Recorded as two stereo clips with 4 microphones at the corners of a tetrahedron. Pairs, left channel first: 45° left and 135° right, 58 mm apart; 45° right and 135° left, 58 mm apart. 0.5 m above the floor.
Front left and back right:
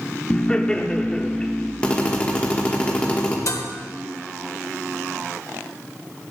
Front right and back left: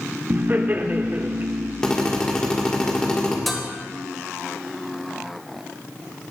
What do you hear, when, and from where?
0.3 s laughter: 110° left, 0.8 m
1.8 s a drill: 10° left, 1.4 m
3.5 s dishes clattering: 45° left, 1.3 m